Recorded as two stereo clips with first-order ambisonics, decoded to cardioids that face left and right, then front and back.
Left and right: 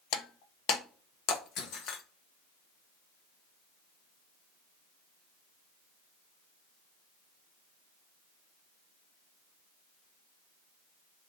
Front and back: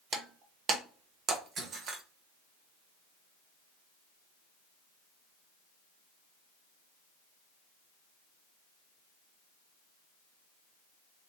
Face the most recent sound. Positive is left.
turn(degrees=125)